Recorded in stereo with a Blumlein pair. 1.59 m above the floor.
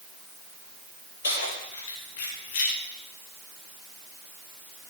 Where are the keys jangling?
65° left, 4.5 m; by 2.7 s 45° left, 4 m.